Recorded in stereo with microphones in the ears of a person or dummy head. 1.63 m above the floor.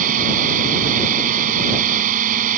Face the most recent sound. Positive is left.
turn(degrees=-45)  # may be behind; listen again after turning